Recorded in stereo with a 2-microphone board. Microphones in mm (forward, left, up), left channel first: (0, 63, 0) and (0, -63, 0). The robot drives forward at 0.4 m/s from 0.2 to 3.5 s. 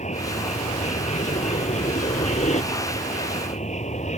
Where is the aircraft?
65° left (ahead or behind).